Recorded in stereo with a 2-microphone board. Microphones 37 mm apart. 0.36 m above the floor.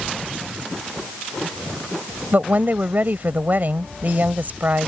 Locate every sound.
2.3 s a woman speaking: 50° right (ahead or behind)